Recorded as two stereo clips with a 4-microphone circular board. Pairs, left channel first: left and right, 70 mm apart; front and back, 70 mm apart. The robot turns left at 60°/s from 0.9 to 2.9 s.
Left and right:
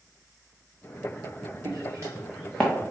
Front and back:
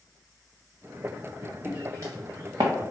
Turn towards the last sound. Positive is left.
turn(degrees=150)